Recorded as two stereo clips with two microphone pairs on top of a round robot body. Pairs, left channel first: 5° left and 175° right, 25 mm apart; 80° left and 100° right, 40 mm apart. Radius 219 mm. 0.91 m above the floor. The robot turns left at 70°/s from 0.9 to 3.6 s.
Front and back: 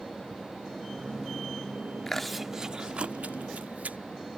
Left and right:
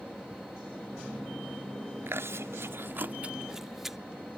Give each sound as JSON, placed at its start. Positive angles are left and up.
{"t": 2.1, "sound": "chewing", "azimuth_deg": -70}